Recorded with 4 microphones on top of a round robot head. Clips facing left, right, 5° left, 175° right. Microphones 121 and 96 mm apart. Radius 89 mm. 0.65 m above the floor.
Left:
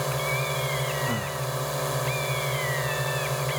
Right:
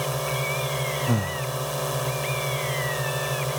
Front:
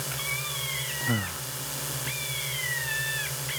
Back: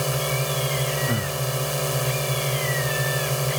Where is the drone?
175° right.